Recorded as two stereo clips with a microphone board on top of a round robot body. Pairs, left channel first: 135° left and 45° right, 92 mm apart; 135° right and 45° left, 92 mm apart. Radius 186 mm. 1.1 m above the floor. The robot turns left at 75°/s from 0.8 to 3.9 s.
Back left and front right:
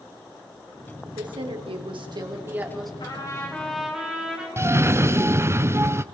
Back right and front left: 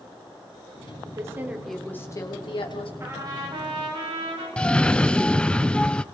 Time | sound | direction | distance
1.1 | a woman speaking | straight ahead | 3.5 m
3.0 | a trumpet | 105° left | 6 m
4.6 | a cough | 65° right | 0.7 m